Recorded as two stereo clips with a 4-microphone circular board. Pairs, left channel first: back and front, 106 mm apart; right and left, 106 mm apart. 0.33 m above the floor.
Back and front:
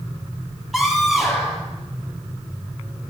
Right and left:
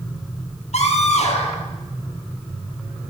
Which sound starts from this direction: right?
A scream, at 0.7 s.